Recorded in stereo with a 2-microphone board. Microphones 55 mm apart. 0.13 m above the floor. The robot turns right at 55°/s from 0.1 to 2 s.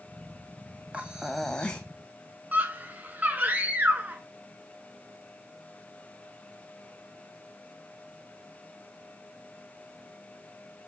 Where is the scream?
35° right (ahead or behind), 1.2 m.